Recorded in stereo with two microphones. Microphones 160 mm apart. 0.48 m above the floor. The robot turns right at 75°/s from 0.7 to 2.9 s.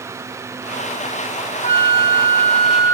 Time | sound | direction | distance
1.6 | a flute | 60° left | ?